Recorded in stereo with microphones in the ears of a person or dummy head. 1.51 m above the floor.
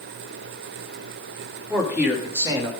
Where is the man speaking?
Centre (ahead or behind), 3 m; by 2.7 s 20° right (ahead or behind), 2.5 m.